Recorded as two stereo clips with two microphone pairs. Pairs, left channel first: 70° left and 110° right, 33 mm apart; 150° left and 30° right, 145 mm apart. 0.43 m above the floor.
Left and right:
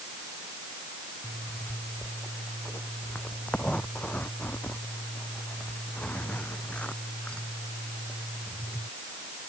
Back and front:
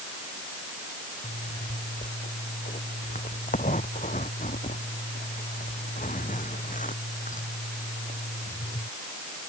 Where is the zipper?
125° left.